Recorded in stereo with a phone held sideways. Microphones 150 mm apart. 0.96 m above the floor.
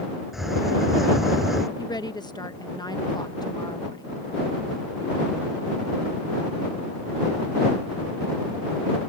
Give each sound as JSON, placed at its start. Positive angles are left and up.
{"t": 0.3, "sound": "a hiss", "side_deg": 0}
{"t": 1.8, "sound": "a woman speaking", "side_deg": 30}